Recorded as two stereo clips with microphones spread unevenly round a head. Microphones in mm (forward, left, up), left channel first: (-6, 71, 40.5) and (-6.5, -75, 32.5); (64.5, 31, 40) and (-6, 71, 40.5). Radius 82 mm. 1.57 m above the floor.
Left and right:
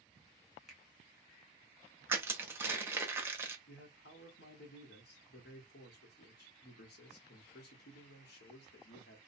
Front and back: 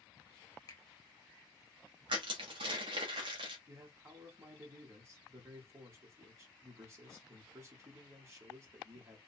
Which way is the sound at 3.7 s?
95° left.